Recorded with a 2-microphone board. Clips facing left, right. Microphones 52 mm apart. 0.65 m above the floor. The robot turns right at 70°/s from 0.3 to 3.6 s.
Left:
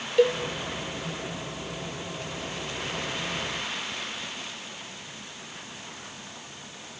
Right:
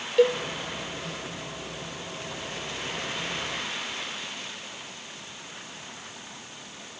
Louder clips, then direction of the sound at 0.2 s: Right 1 dB; centre (ahead or behind).